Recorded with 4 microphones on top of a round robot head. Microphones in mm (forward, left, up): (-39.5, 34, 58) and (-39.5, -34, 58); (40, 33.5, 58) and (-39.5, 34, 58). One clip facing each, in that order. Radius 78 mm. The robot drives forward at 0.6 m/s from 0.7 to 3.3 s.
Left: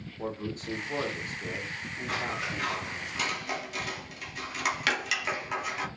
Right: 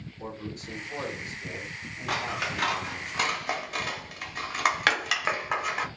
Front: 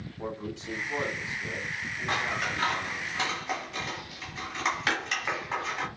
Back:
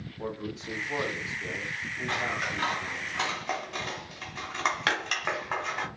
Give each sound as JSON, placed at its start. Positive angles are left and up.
{"t": 0.2, "sound": "a man speaking", "azimuth_deg": 95, "distance_m": 1.1}
{"t": 2.1, "sound": "scissors", "azimuth_deg": -75, "distance_m": 0.6}